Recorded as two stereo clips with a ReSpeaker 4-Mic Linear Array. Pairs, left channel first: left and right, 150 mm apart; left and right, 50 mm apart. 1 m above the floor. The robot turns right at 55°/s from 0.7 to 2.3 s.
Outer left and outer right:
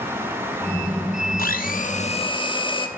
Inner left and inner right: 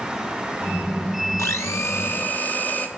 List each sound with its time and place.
1.4 s a blender: 95° left, 0.9 m; by 2.9 s 145° left, 0.9 m